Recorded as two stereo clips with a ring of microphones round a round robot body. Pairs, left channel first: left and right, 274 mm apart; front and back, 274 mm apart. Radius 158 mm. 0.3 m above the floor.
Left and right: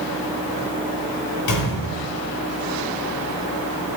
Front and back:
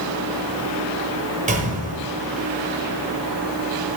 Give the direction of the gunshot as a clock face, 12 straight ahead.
8 o'clock.